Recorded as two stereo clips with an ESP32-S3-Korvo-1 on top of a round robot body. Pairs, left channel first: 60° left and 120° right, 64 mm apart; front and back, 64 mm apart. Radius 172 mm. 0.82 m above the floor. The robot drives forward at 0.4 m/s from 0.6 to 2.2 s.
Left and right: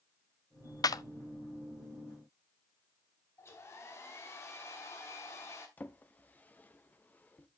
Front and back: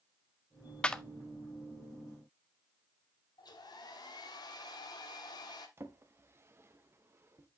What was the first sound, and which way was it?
A clap, 70° left.